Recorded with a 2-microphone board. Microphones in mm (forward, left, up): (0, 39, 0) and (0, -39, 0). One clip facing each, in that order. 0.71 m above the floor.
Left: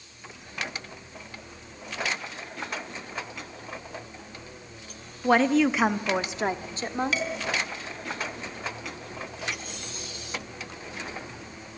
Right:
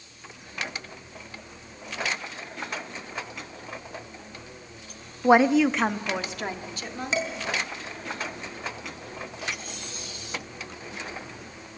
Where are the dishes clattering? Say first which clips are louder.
Right 1 dB; 25° right (ahead or behind), 4.5 m.